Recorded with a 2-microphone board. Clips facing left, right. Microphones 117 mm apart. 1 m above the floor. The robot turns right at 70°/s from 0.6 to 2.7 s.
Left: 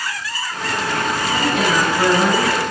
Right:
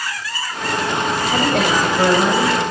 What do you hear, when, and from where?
1.3 s a woman speaking: 75° right, 4.5 m; by 2.6 s 20° left, 4.5 m